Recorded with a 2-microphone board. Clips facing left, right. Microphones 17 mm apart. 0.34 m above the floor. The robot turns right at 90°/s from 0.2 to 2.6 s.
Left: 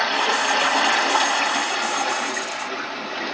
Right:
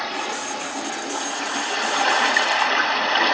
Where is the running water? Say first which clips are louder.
Left 7 dB; 40° left, 1.9 m; by 3.4 s 105° right, 1.9 m.